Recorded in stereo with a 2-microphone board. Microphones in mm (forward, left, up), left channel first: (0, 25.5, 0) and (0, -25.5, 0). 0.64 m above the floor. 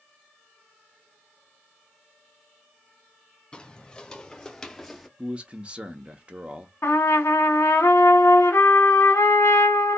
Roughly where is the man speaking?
Right.